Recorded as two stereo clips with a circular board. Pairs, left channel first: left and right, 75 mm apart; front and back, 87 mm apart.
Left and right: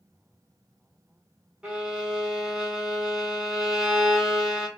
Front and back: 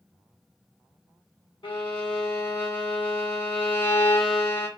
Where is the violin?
10° right, 1.1 m.